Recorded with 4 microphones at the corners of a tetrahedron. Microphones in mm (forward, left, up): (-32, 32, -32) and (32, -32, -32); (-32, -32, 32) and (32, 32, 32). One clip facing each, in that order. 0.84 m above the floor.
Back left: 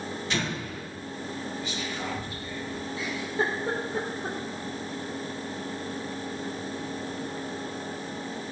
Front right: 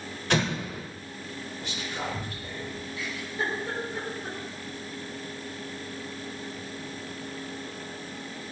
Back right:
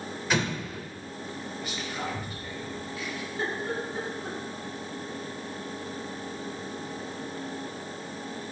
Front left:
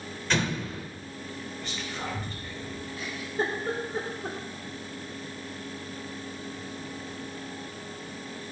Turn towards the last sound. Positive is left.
turn(degrees=80)